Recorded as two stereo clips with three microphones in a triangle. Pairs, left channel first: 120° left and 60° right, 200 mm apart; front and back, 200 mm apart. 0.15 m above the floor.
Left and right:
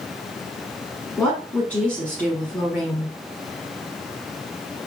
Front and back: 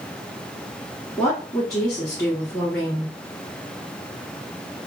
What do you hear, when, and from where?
1.2 s a woman speaking: 45° left, 1.2 m